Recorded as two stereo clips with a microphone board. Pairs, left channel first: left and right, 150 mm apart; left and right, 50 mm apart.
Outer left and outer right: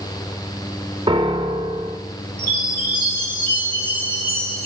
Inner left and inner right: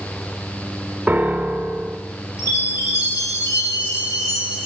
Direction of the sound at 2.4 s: 75° left (ahead or behind).